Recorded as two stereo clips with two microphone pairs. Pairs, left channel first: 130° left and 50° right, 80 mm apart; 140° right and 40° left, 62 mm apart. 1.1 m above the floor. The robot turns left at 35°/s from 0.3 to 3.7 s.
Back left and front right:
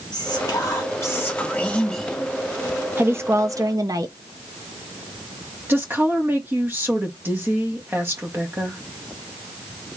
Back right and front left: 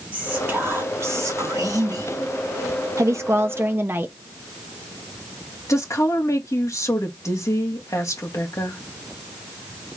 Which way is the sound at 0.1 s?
100° left.